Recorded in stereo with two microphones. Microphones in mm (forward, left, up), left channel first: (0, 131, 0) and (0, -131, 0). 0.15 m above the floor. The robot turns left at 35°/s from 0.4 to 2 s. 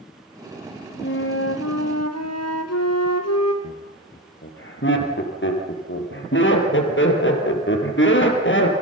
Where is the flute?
130° left, 2 m; by 3.5 s 95° left, 2 m.